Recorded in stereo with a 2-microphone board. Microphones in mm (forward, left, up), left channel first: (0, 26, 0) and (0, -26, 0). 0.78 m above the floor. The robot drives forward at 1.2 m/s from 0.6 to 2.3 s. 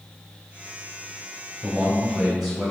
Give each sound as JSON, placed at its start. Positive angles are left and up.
{"t": 1.6, "sound": "a man speaking", "side_deg": 0, "distance_m": 3.0}